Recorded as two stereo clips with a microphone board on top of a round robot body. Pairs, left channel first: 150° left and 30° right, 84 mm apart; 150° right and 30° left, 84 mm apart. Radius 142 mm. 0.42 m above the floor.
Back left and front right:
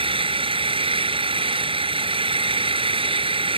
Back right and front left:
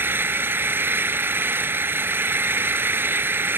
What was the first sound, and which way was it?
An engine running, 35° right.